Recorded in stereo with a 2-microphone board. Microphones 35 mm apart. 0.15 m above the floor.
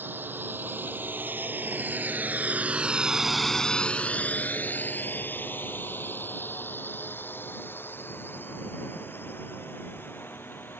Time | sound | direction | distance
0.0 | a drone | 75° right (ahead or behind) | ?